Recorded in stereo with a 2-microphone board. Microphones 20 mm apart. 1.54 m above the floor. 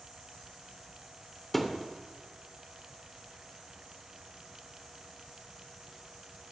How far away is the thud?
About 2.5 m.